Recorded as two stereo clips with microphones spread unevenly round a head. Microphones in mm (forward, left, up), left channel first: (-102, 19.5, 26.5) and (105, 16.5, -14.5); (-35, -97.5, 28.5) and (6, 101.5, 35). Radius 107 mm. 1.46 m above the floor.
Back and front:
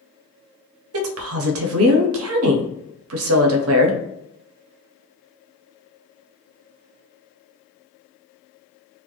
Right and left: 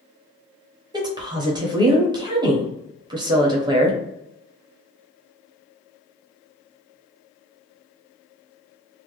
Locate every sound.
0.9 s a woman speaking: 10° left, 0.6 m